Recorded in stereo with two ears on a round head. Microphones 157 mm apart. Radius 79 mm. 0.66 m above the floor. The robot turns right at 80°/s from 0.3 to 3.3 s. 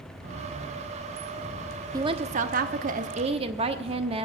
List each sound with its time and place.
1.9 s a woman speaking: 150° right, 1.0 m; by 4.3 s 45° right, 1.0 m